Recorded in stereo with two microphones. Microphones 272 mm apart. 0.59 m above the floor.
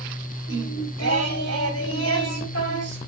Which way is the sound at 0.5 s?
60° left (ahead or behind).